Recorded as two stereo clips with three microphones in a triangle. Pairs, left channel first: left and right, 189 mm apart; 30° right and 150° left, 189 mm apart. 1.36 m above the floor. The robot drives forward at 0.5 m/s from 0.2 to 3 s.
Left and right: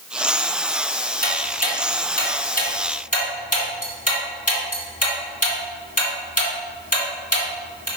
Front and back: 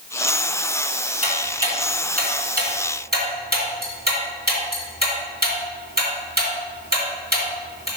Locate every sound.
1.2 s ticking: 110° left, 2.5 m; by 7.9 s 130° left, 2.5 m